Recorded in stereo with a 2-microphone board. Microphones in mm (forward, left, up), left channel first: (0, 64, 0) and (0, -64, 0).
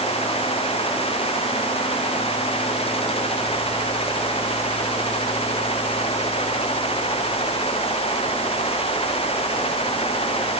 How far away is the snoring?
No snoring in this recording.